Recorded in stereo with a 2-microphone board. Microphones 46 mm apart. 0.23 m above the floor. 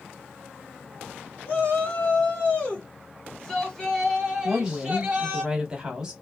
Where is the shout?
40° left (ahead or behind), 2.0 m; by 5.4 s 30° right (ahead or behind), 1.4 m.